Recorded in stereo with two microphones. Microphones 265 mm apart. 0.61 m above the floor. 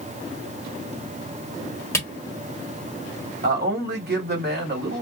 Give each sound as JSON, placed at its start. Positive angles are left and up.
{"t": 1.9, "sound": "a camera shutter", "side_deg": 10, "distance_m": 1.1}
{"t": 3.4, "sound": "a man speaking", "side_deg": -40, "distance_m": 1.6}